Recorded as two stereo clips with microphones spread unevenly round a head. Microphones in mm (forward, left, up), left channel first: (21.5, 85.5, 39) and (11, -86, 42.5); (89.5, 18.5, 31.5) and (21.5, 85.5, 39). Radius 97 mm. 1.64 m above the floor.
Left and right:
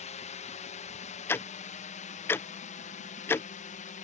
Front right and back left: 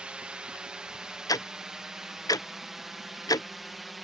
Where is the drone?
60° left; by 4.0 s 45° left.